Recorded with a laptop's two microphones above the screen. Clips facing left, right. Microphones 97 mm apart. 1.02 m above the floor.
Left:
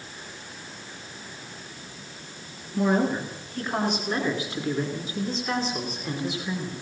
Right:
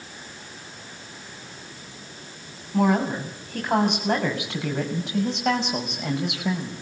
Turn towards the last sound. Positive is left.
turn(degrees=-80)